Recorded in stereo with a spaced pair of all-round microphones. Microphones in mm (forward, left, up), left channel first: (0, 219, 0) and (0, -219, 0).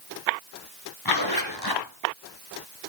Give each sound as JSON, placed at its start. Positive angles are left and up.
{"t": 1.1, "sound": "a zipper", "side_deg": 55, "distance_m": 3.0}